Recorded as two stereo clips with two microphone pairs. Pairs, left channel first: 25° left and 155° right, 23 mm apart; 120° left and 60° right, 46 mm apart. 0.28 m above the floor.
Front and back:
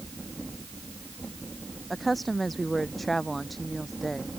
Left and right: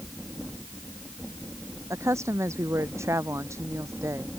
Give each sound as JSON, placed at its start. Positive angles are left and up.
{"t": 1.9, "sound": "a woman speaking", "azimuth_deg": -60}